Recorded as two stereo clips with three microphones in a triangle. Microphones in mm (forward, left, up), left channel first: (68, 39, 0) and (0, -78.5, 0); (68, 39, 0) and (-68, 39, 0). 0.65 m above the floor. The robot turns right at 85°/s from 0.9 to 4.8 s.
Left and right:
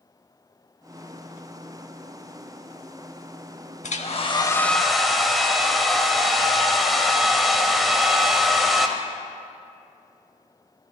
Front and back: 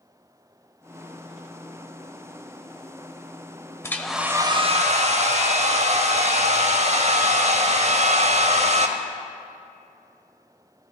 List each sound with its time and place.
3.8 s a hair dryer: 70° left, 0.6 m; by 8.9 s 150° left, 0.6 m